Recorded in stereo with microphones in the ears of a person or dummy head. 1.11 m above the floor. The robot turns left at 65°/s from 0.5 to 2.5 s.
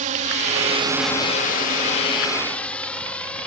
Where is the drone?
45° right (ahead or behind); by 3.5 s 5° left (ahead or behind).